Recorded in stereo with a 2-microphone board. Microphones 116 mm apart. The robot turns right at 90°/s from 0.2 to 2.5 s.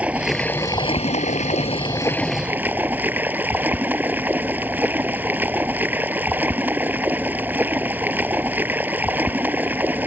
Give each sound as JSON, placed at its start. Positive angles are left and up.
{"t": 0.0, "sound": "running water", "azimuth_deg": -10}